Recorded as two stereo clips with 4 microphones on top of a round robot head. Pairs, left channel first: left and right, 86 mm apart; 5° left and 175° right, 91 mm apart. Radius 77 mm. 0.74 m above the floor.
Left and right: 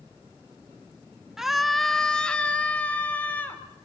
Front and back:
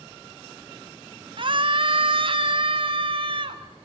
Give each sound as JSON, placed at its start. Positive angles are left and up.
{"t": 1.4, "sound": "a scream", "azimuth_deg": -175, "distance_m": 0.8}